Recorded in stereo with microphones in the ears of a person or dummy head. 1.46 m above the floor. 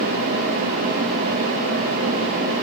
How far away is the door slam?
No door slam in this recording.